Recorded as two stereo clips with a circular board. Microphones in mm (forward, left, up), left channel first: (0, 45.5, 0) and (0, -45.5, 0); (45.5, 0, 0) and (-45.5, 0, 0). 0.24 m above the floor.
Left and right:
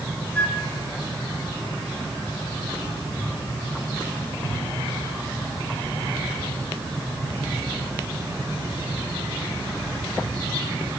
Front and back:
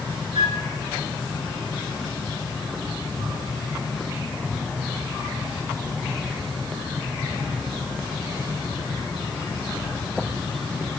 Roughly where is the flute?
Behind.